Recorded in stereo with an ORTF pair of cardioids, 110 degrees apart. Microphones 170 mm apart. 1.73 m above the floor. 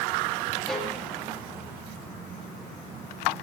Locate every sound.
0.7 s a violin: 5° left, 1.3 m